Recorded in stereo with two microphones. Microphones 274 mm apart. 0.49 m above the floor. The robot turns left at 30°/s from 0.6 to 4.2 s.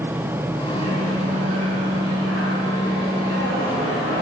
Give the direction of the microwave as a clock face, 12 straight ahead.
2 o'clock.